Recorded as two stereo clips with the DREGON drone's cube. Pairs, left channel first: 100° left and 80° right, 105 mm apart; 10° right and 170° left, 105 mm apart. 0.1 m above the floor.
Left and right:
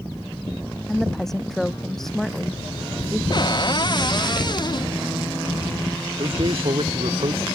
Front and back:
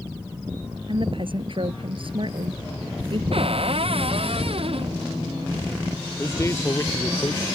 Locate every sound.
0.9 s a woman speaking: 175° right
3.3 s a cupboard door: 145° left
6.2 s a man speaking: 70° right